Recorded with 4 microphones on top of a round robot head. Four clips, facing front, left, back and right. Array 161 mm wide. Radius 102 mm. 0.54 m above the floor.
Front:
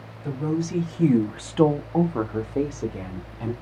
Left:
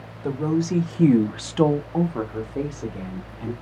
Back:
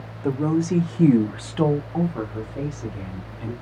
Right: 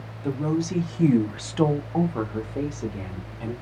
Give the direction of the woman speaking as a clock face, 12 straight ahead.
7 o'clock.